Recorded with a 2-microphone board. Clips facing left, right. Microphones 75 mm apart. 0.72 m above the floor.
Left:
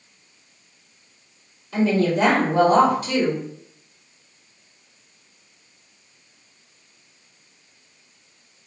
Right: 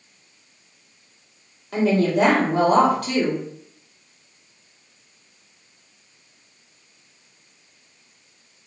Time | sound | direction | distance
1.7 | a woman speaking | 60° right (ahead or behind) | 1.4 m